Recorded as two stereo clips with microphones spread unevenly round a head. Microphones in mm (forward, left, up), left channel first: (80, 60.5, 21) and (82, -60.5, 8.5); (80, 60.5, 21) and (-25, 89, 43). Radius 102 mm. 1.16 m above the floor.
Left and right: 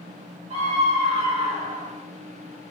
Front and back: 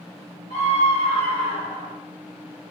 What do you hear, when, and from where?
0.5 s a scream: 55° right, 4.5 m; by 1.9 s 65° right, 3 m